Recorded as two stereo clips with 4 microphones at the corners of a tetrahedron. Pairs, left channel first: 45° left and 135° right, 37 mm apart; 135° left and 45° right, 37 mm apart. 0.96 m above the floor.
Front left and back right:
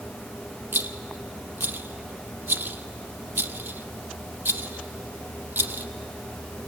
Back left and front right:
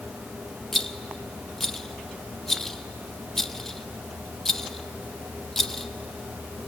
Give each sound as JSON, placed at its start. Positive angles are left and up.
{"t": 0.7, "sound": "a rattle", "azimuth_deg": -145, "distance_m": 0.8}